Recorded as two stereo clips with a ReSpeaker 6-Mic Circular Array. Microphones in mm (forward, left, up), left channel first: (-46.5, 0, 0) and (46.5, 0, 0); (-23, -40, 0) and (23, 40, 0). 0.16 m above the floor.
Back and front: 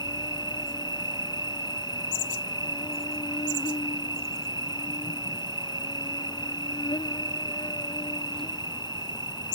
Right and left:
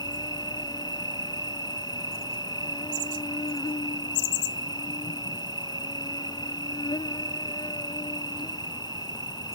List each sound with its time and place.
0.0 s an insect: 150° right